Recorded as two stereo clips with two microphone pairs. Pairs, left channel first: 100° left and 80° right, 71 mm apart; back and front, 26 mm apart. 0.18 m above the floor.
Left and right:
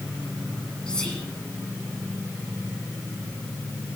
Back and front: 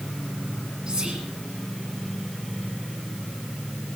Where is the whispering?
30° left, 1.9 m.